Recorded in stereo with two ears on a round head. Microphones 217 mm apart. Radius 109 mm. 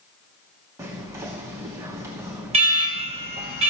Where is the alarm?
25° right (ahead or behind), 2 m.